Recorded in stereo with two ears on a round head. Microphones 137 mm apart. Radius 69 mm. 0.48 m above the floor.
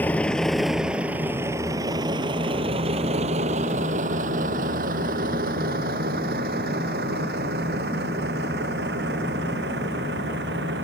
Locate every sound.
0.0 s a vehicle: 10° left (ahead or behind); by 10.8 s 75° right (ahead or behind)